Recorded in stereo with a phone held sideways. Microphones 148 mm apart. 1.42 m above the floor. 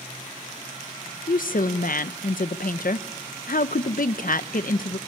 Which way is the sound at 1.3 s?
70° left (ahead or behind).